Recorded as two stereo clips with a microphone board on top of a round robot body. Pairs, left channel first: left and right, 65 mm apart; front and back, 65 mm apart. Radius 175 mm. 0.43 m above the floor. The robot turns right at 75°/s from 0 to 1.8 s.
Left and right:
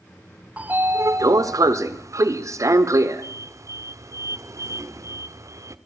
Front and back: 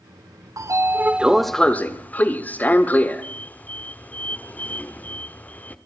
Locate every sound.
0.6 s a sliding door: 155° right, 1.2 m; by 5.8 s 60° right, 1.2 m